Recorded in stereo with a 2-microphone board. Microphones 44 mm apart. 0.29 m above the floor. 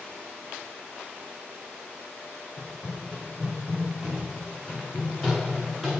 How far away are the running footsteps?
About 6 m.